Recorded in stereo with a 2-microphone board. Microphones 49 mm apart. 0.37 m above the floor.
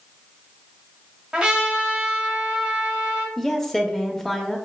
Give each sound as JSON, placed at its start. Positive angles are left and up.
{"t": 1.3, "sound": "a trumpet", "side_deg": -20, "distance_m": 1.1}
{"t": 3.4, "sound": "a woman speaking", "side_deg": 5, "distance_m": 0.8}